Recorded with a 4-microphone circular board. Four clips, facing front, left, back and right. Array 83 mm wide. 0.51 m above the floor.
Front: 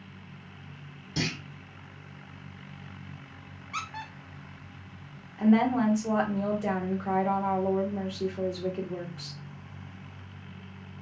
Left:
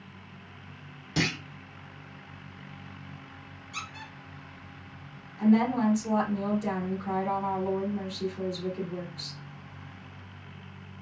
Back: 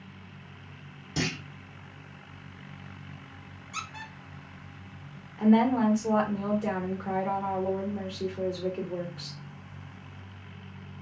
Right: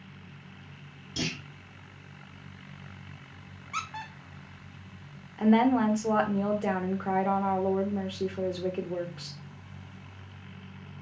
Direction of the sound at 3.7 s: 50° right.